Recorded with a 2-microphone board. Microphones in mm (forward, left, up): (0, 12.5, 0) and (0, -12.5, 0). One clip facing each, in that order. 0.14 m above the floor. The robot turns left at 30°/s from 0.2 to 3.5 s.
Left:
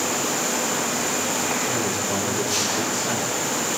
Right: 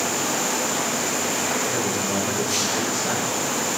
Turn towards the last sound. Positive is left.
turn(degrees=-20)